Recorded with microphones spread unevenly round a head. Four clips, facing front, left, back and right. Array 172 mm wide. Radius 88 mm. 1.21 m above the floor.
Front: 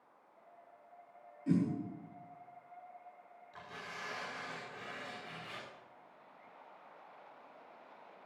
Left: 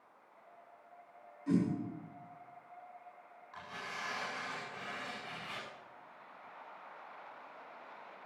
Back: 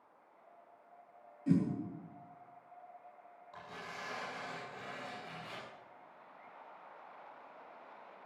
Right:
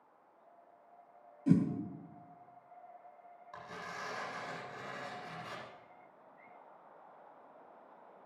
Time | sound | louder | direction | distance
1.5 | a whoosh | right 3 dB, back 1 dB | 80° right | 2.5 m
3.5 | tearing paper | even, back 1 dB | 140° right | 9 m